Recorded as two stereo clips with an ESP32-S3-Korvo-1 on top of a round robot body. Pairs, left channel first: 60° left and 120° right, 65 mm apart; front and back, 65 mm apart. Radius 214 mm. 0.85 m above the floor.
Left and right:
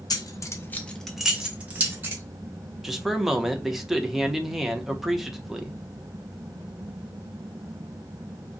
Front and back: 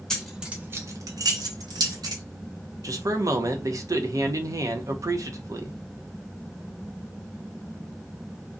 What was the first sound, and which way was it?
Keys jangling, 80° left.